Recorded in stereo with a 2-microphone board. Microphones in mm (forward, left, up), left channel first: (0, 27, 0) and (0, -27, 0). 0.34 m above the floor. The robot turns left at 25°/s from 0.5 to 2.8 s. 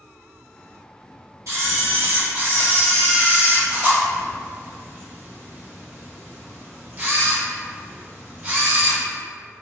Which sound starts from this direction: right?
A camera shutter, at 1.5 s.